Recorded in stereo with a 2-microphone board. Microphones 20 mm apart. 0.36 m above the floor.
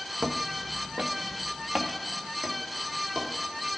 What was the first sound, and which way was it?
Footsteps, 55° right (ahead or behind).